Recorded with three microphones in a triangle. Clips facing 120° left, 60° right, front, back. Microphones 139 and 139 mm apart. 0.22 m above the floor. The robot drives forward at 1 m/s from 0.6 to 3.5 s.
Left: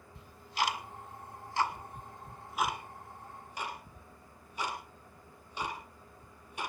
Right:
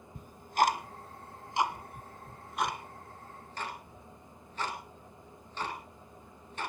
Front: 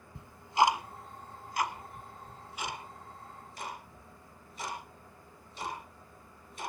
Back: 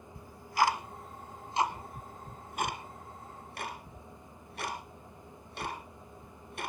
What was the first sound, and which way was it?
Ticking, 60° right.